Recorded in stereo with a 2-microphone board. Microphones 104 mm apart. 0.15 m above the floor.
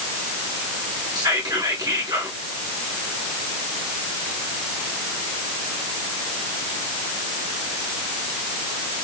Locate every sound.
1.1 s whispering: 40° right (ahead or behind), 1.7 m